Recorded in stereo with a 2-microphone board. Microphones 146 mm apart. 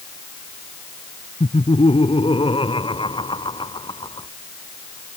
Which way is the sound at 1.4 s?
40° left (ahead or behind).